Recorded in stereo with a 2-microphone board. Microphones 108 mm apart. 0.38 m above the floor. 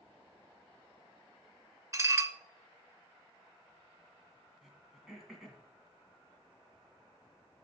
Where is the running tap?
No running tap in this recording.